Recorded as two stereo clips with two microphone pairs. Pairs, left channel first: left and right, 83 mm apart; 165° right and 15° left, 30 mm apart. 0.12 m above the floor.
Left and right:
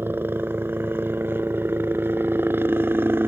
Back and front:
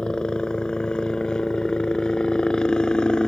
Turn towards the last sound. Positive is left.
turn(degrees=-130)